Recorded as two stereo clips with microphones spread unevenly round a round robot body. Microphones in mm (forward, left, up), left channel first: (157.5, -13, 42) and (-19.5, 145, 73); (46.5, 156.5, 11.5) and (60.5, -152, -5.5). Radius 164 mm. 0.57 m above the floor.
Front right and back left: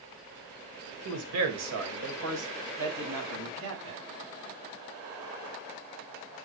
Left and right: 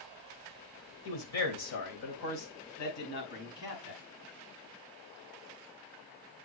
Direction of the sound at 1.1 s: 135° left.